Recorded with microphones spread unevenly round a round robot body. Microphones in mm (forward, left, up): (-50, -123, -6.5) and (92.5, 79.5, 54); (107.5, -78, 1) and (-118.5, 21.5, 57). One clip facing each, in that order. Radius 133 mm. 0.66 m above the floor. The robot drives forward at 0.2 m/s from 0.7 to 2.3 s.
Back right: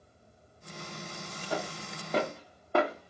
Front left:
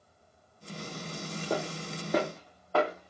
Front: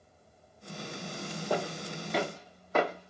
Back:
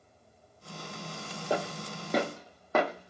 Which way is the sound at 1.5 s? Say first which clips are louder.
Front left 3 dB, back 1 dB; 90° left.